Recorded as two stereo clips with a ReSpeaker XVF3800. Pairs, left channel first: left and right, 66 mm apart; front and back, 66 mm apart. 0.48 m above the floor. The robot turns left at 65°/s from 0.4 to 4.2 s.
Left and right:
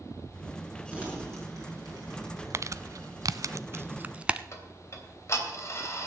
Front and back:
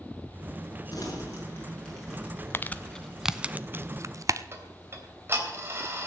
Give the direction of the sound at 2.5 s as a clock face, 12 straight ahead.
2 o'clock.